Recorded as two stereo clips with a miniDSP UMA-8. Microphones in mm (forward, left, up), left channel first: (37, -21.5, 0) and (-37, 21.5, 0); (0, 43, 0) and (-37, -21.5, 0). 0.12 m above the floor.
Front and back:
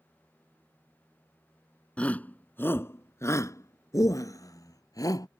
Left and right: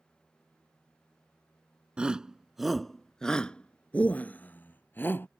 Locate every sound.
2.0 s a shout: 75° right; by 5.3 s 5° left